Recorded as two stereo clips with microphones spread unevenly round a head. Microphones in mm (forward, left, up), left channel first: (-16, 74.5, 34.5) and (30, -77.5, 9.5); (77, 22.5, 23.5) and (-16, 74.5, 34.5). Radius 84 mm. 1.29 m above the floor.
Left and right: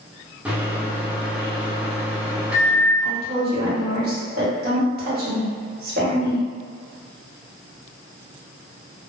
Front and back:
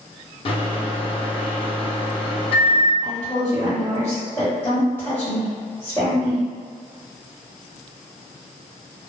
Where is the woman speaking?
105° right, 1.1 m.